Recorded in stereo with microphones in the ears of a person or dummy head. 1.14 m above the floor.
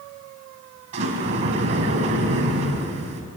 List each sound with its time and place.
0.9 s a sliding door: 40° right (ahead or behind), 2.5 m